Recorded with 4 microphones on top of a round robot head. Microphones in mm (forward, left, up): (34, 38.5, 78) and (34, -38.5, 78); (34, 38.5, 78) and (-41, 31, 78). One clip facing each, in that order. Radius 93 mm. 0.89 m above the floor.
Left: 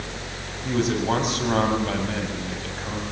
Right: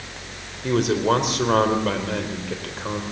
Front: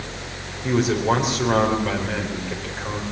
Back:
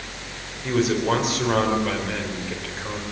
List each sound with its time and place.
0.6 s a man speaking: 80° right, 4.5 m